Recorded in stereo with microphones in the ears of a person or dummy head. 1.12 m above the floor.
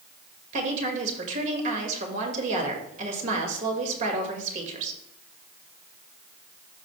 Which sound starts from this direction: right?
A woman speaking, at 0.5 s.